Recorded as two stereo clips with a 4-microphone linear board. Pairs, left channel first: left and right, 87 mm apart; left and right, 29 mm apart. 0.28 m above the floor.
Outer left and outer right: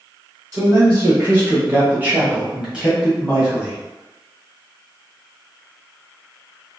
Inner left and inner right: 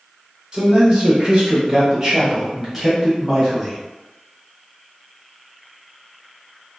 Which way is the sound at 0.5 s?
25° right (ahead or behind).